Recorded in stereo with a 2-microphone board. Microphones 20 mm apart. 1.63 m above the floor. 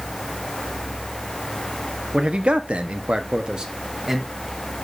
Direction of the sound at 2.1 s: 60° right (ahead or behind).